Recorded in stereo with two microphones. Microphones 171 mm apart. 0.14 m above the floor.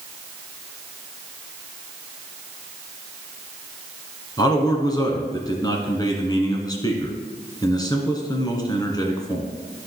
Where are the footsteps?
No footsteps in this recording.